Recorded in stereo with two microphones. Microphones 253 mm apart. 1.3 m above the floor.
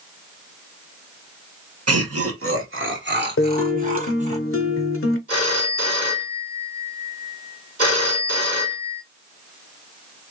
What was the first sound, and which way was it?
Laughter, 75° right (ahead or behind).